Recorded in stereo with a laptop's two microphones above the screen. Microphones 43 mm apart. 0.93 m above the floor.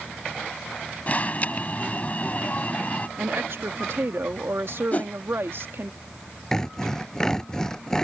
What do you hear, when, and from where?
1.1 s an alarm: 35° left (ahead or behind)
3.2 s a woman speaking: 65° right (ahead or behind)
4.9 s a whoosh: 40° left (ahead or behind)
6.5 s sawing: 10° left (ahead or behind)